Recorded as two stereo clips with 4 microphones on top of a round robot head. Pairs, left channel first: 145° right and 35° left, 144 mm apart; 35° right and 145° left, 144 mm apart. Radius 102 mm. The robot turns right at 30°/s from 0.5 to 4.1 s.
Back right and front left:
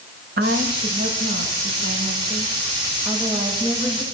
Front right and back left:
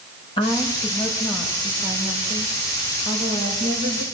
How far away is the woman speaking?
About 6 m.